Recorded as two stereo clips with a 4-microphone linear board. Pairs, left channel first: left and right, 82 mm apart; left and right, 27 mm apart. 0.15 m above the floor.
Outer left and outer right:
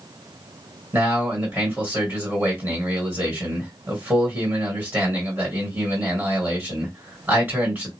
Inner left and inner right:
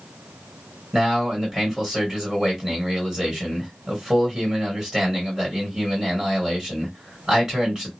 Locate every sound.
0.9 s a man speaking: 25° right (ahead or behind), 2.0 m